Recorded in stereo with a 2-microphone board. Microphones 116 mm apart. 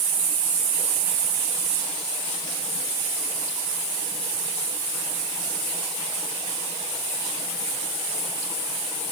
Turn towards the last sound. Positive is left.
No sound to turn to.